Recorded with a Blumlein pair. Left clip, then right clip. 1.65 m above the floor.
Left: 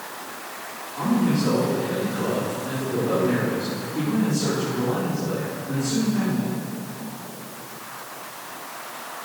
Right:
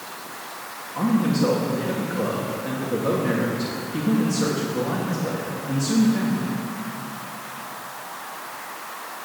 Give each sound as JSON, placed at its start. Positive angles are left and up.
{"t": 0.9, "sound": "a man speaking", "azimuth_deg": -60, "distance_m": 3.5}